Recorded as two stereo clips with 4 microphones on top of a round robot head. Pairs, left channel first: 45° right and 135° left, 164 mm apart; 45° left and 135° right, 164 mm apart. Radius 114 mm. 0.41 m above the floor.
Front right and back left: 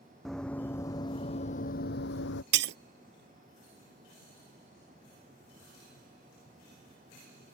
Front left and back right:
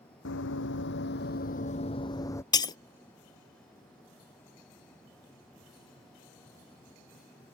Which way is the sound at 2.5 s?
115° left.